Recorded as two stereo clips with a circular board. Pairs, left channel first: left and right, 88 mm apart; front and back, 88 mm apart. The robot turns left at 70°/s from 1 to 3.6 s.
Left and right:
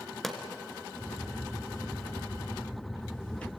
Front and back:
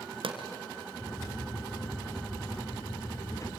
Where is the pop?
Straight behind, 2.0 m.